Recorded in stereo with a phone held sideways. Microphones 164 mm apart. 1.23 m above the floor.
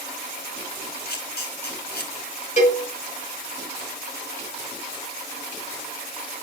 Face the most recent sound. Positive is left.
turn(degrees=45)  # may be behind; listen again after turning